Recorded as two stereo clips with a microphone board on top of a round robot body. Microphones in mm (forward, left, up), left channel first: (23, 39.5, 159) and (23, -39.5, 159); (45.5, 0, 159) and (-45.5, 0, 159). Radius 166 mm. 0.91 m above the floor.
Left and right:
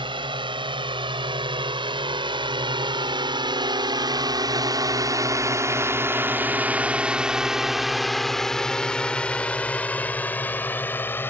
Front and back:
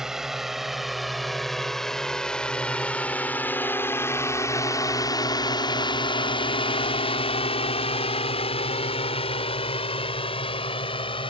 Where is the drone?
95° right; by 11.3 s 25° left.